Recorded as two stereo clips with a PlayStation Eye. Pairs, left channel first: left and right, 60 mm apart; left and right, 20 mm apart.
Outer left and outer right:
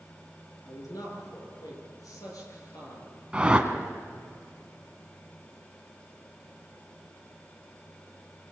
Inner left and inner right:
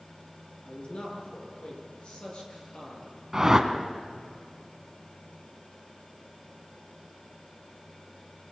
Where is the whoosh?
20° right (ahead or behind), 1.6 m.